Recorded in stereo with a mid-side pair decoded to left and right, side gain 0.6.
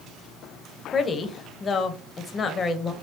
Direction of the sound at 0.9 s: 35° left.